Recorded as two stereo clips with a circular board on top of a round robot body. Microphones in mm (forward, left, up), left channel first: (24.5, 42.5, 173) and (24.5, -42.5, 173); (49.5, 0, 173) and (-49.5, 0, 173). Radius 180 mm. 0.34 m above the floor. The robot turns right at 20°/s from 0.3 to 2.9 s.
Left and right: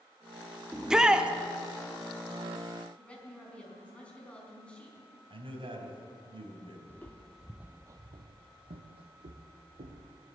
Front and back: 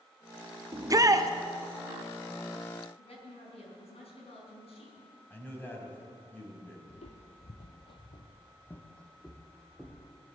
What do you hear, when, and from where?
0.7 s a shout: 175° right, 1.3 m; by 1.3 s 160° right, 1.3 m
3.0 s a woman speaking: 15° left, 5 m
5.3 s a man speaking: 70° right, 4 m
6.9 s footsteps: 20° left, 1.1 m; by 10.2 s 95° right, 2.5 m